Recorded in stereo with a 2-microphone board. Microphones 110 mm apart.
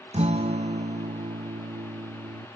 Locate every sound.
0.1 s a guitar: 75° right (ahead or behind), 0.8 m